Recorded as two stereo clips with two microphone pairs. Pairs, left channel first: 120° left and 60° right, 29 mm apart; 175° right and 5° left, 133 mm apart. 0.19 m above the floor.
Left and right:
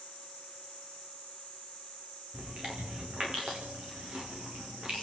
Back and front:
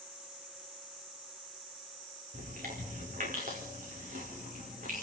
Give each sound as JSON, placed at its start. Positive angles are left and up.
{"t": 2.3, "sound": "chewing", "azimuth_deg": -10, "distance_m": 6.5}